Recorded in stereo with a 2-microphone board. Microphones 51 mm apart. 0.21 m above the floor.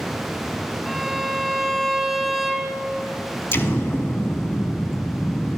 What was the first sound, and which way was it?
A violin, centre (ahead or behind).